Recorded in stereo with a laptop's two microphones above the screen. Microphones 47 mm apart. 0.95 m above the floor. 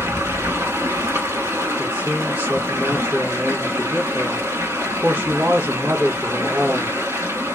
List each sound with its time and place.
0.0 s running water: 75° right (ahead or behind), 1.9 m
1.8 s a man speaking: 40° right (ahead or behind), 1.3 m